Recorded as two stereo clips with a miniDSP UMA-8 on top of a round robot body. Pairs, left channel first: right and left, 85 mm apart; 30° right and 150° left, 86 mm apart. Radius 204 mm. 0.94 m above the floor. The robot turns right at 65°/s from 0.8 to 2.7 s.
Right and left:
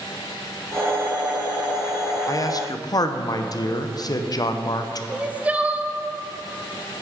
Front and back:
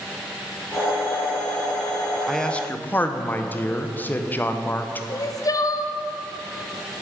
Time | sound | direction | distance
2.3 | a man speaking | 120° right | 0.9 m
5.1 | crying | 15° left | 0.7 m